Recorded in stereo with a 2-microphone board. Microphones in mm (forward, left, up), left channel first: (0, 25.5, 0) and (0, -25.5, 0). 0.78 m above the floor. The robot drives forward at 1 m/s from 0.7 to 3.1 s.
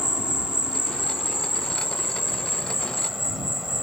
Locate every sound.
0.0 s an insect: 15° right (ahead or behind); by 3.8 s 5° right (ahead or behind)